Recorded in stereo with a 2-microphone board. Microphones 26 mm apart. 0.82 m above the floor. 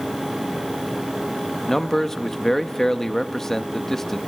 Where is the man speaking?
15° left (ahead or behind), 1.1 m.